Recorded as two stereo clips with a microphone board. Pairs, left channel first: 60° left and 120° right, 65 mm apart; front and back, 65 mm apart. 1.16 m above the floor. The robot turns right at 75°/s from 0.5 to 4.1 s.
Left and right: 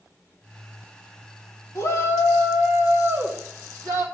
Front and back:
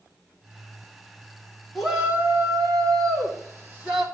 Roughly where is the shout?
Left.